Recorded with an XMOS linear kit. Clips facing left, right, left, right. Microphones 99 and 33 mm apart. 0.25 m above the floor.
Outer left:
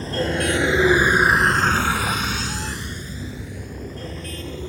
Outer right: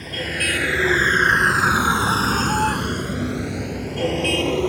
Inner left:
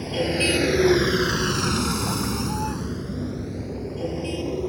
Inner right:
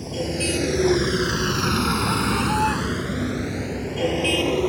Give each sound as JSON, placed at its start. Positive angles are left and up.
{"t": 0.0, "sound": "a vehicle", "side_deg": 30}